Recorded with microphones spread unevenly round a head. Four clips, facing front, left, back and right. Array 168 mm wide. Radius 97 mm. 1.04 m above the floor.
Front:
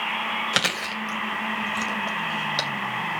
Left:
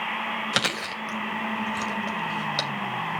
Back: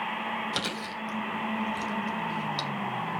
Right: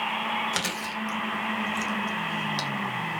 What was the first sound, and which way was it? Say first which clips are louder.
Chewing: left 2 dB, front 6 dB; 40° left.